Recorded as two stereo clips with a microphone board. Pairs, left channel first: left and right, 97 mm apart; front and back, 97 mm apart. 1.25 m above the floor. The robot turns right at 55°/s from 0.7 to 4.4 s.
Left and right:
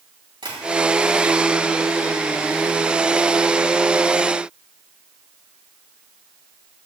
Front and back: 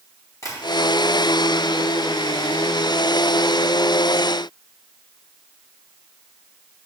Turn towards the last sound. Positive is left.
turn(degrees=150)